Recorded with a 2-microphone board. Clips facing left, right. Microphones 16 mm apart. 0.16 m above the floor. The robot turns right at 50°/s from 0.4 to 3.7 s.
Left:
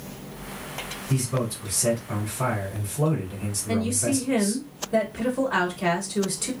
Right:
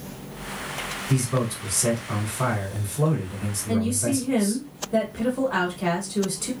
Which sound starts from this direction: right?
A man speaking, at 1.1 s.